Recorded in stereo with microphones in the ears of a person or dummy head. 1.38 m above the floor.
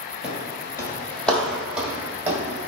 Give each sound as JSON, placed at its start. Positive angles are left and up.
{"t": 0.2, "sound": "footsteps", "side_deg": 30, "distance_m": 1.9}